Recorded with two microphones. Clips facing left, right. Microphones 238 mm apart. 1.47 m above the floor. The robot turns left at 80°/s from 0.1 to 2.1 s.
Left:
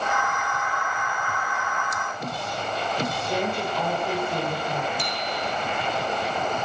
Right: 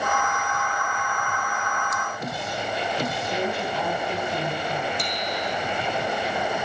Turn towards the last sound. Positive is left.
turn(degrees=5)  # may be behind; listen again after turning